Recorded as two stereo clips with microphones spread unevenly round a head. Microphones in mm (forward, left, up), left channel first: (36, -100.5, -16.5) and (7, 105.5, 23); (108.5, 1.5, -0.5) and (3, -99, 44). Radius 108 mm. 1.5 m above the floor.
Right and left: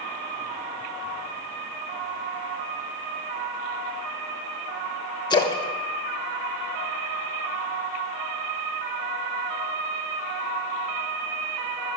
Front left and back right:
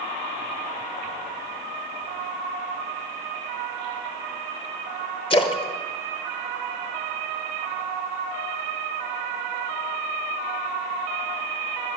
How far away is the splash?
About 1.2 m.